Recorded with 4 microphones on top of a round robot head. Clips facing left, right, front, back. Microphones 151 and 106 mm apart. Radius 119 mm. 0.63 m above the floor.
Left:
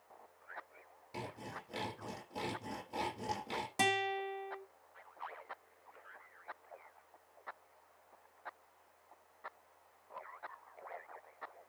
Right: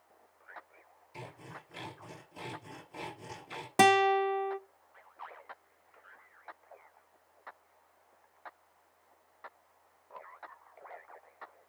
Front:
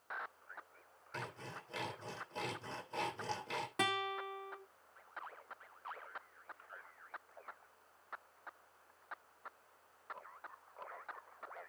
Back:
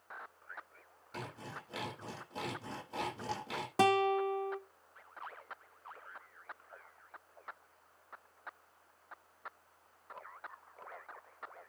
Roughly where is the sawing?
Left.